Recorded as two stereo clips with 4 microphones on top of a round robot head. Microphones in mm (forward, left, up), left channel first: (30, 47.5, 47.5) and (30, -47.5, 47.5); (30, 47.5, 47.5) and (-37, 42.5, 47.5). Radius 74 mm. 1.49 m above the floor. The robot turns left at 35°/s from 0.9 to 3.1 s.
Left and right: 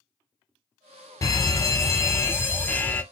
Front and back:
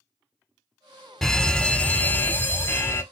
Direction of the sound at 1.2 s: 85° left.